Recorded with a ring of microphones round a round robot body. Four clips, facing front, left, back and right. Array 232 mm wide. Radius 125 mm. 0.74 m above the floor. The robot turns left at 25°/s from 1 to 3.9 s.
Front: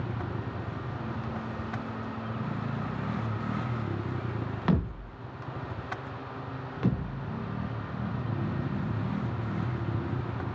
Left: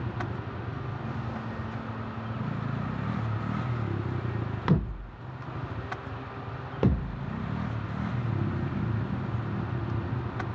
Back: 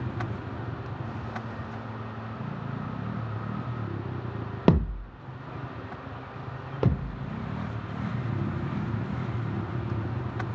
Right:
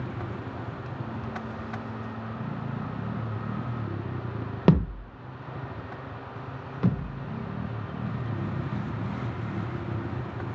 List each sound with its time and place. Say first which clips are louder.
4.7 s a thud: right 6 dB, back 6 dB; 135° right, 0.9 m
6.8 s a thud: left 1 dB, back 2 dB; 130° left, 1.5 m